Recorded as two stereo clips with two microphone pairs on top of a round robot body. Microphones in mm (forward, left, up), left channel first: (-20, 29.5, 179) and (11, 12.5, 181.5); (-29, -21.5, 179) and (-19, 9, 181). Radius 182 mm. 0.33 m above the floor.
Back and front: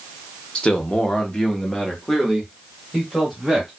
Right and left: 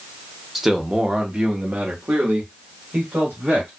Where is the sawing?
I don't hear sawing.